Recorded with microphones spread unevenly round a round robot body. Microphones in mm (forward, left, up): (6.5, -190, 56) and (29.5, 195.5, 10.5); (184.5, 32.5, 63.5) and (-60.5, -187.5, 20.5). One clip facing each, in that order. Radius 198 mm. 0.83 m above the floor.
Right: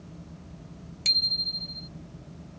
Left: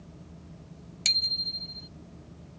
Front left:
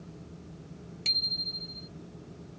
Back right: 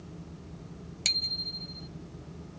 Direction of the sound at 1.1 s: 155° left.